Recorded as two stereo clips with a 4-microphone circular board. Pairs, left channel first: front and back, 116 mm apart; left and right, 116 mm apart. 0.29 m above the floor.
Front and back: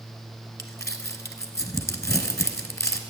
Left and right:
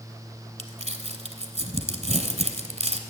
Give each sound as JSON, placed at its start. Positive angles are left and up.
{"t": 0.6, "sound": "crumpling", "azimuth_deg": -65, "distance_m": 0.8}